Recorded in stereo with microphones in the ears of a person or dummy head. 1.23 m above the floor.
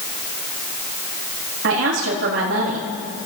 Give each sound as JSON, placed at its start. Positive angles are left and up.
{"t": 1.6, "sound": "a woman speaking", "side_deg": -65, "distance_m": 2.0}